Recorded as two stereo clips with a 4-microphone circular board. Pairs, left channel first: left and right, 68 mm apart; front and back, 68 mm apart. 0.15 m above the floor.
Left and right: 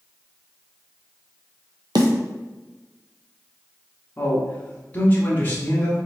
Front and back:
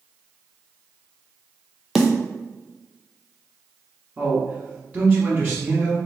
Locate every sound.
1.9 s a snare drum: 90° right, 0.7 m
4.2 s a man speaking: 130° left, 1.2 m